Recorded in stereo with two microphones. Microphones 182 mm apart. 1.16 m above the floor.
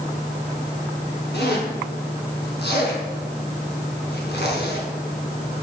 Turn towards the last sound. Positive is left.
turn(degrees=80)